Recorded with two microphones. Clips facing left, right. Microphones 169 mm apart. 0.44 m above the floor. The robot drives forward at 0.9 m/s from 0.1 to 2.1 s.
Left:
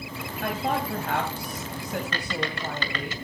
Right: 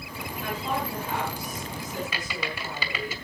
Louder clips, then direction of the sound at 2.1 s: Left 3 dB; 10° right (ahead or behind).